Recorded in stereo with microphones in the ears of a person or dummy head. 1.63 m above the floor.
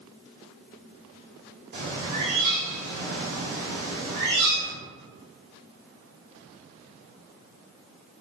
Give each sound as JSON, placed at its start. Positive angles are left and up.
{"t": 1.7, "sound": "a bird", "side_deg": -55, "distance_m": 0.8}